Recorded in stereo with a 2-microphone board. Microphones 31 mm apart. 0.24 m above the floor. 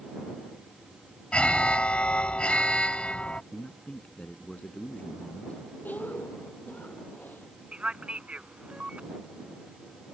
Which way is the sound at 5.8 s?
70° left (ahead or behind).